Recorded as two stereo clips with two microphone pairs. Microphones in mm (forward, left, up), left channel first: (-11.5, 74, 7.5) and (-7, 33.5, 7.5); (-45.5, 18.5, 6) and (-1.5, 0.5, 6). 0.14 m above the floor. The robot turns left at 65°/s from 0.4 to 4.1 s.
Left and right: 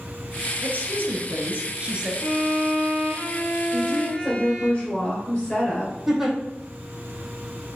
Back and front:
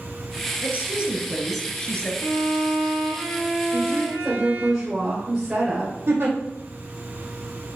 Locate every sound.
0.6 s a woman speaking: 60° right, 1.8 m; by 2.1 s 155° right, 1.8 m
2.2 s a violin: 155° left, 3 m; by 4.7 s 30° left, 3 m
3.7 s a woman speaking: 65° left, 2.5 m; by 6.0 s 40° left, 2.5 m
6.1 s a giggle: straight ahead, 2 m